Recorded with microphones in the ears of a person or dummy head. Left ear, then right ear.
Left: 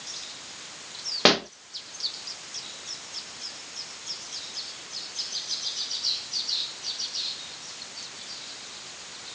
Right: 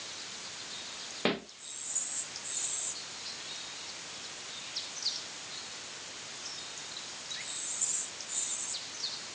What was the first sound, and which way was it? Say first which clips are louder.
A pop: left 12 dB; 50° left (ahead or behind).